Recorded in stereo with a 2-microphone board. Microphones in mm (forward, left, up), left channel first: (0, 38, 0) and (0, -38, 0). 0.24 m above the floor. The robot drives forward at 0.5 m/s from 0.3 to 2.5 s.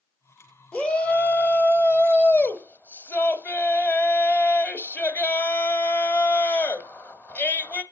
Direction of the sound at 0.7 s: 15° left (ahead or behind).